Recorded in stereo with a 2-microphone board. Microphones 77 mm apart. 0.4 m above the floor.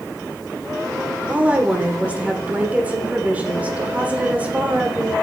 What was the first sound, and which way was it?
A woman speaking, 20° right (ahead or behind).